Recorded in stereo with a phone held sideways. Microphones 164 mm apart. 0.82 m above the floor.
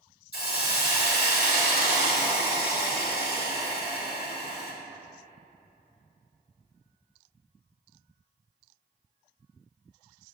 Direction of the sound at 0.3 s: 75° left (ahead or behind).